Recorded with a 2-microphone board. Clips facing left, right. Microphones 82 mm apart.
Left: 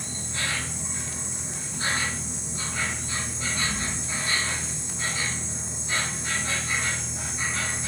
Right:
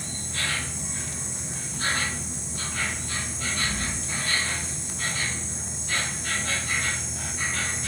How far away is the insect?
About 1.0 m.